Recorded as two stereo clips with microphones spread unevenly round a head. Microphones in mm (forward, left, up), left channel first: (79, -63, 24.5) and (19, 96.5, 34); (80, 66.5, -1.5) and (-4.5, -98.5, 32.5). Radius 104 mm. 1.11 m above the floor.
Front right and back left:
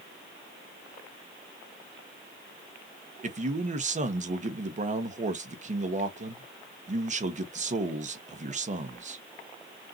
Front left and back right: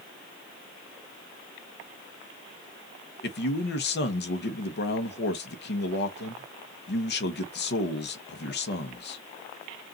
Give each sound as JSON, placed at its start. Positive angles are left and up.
{"t": 3.2, "sound": "a man speaking", "azimuth_deg": 65, "distance_m": 1.2}